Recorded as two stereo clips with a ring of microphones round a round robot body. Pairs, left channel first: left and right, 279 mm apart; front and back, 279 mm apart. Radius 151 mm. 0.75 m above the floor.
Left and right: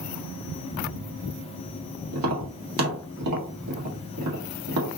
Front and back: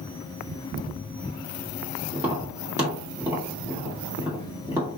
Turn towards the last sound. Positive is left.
turn(degrees=-100)